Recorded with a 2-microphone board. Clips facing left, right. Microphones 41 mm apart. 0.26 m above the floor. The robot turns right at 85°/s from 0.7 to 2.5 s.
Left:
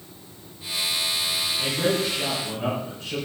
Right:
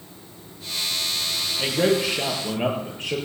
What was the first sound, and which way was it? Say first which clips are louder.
A man speaking: right 4 dB; 150° right.